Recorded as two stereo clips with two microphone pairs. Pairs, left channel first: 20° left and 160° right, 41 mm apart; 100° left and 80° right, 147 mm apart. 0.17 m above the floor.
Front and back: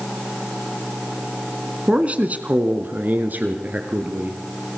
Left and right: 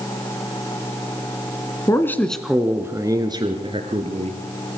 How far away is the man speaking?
About 1.7 m.